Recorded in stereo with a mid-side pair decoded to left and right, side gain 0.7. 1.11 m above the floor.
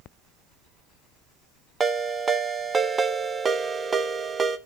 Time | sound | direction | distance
1.8 | a ringtone | 20° right | 0.8 m